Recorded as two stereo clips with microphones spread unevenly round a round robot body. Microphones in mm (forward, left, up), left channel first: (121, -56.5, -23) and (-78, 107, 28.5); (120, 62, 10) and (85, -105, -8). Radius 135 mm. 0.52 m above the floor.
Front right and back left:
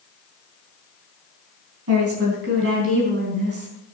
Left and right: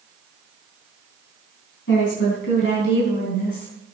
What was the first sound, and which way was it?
A woman speaking, 105° left.